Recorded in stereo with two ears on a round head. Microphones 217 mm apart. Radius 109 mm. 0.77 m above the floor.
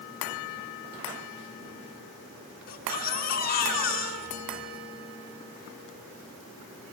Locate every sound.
2.7 s a baby crying: 40° left (ahead or behind), 6 m